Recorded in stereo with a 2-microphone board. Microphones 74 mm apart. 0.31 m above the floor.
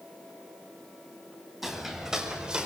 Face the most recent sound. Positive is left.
turn(degrees=-10)  # may be behind; listen again after turning